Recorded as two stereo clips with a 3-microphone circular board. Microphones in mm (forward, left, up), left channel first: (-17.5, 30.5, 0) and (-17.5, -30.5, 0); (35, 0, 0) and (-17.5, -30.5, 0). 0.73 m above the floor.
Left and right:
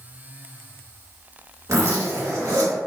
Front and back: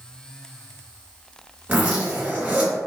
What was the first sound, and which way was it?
A zipper, 90° right.